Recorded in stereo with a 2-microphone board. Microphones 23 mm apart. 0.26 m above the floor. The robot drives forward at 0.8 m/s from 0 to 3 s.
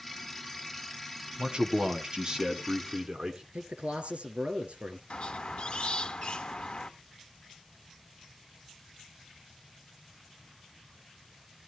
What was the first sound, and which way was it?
A man speaking, 50° right (ahead or behind).